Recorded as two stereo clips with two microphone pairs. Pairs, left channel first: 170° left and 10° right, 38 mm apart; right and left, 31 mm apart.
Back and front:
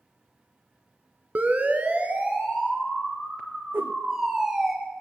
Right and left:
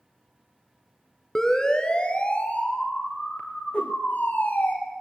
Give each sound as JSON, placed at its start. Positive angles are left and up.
{"t": 1.4, "sound": "a siren", "azimuth_deg": -20, "distance_m": 2.5}
{"t": 3.7, "sound": "a whoosh", "azimuth_deg": -40, "distance_m": 1.6}